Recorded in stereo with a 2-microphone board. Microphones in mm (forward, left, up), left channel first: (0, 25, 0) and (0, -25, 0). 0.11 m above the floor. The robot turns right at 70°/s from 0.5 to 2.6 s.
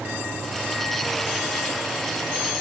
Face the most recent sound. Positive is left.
No sound to turn to.